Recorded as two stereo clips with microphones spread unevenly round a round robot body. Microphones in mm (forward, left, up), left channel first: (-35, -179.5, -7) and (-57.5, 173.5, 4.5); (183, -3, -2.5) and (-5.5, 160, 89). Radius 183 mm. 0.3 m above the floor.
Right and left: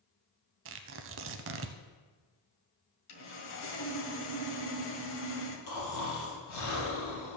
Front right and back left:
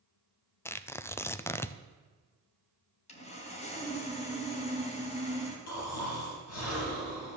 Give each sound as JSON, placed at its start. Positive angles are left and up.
{"t": 0.7, "sound": "tearing paper", "azimuth_deg": 35, "distance_m": 0.6}
{"t": 3.1, "sound": "sawing", "azimuth_deg": -50, "distance_m": 1.8}
{"t": 5.7, "sound": "snoring", "azimuth_deg": -40, "distance_m": 4.0}